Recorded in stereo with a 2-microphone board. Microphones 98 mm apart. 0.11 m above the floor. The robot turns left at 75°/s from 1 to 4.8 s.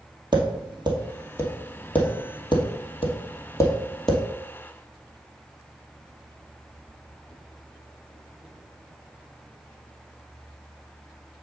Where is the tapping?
50° right (ahead or behind), 2 m; by 4.2 s 5° right (ahead or behind), 2 m.